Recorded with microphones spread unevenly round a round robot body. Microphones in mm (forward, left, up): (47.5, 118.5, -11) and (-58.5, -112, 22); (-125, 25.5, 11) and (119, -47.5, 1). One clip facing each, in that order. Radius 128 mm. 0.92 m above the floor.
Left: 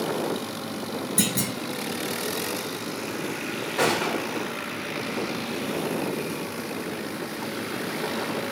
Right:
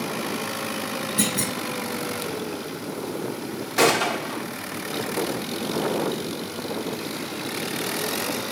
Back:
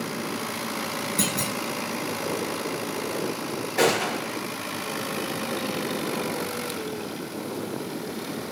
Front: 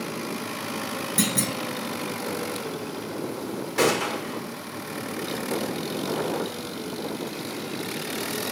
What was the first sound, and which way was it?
A clunk, 15° left.